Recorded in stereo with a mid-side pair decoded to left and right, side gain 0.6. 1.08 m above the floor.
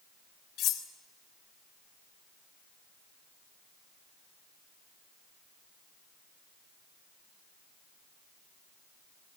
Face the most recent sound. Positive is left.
turn(degrees=60)